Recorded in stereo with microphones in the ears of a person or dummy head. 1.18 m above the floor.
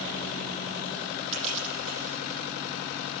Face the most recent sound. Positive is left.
turn(degrees=-40)  # may be behind; listen again after turning